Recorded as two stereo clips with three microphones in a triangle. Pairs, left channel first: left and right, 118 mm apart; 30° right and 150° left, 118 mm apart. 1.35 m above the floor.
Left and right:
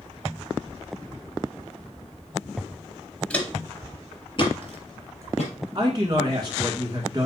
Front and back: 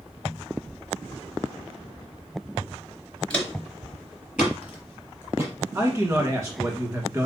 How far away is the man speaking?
About 1.6 m.